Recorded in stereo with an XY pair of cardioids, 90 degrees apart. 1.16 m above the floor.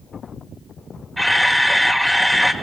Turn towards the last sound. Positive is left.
turn(degrees=5)